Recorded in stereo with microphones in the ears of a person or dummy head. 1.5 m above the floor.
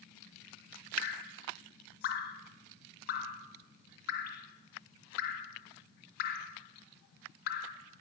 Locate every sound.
1.0 s dripping: 50° left (ahead or behind), 0.5 m